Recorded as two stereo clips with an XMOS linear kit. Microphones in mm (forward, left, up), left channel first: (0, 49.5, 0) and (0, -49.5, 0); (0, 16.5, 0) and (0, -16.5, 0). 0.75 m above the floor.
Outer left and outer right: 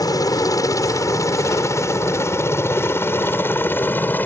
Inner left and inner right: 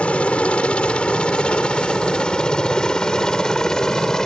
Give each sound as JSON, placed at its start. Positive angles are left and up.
{"t": 0.0, "sound": "a helicopter", "side_deg": 40}